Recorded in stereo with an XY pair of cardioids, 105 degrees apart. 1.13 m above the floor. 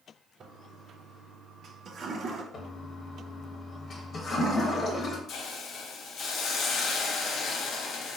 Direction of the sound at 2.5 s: 45° left.